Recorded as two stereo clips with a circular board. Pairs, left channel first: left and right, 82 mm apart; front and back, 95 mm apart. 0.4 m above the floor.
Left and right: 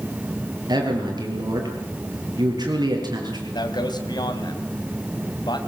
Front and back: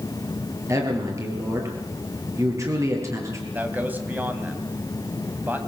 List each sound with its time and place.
0.7 s a man speaking: 125° right, 7.5 m
3.5 s a man speaking: 110° left, 3 m